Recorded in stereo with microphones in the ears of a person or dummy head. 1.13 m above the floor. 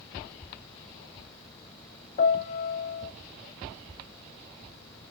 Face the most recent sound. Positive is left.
turn(degrees=45)  # may be behind; listen again after turning